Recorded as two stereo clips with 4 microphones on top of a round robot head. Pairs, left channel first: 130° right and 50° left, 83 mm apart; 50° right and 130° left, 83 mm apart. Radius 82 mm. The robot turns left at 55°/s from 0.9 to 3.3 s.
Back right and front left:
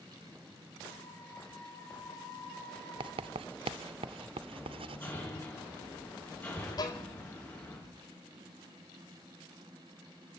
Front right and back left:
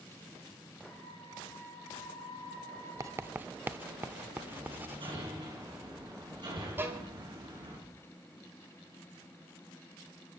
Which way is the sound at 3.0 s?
75° left.